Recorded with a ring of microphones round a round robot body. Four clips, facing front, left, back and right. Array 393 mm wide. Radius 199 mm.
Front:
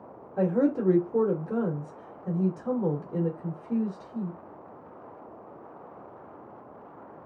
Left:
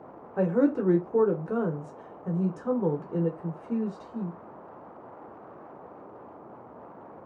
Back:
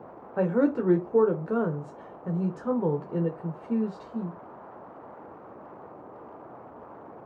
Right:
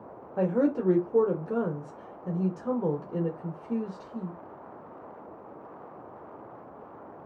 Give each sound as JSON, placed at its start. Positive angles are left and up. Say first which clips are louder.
{"t": 0.4, "sound": "a woman speaking", "louder": "left 2 dB, back 1 dB", "azimuth_deg": 160, "distance_m": 0.8}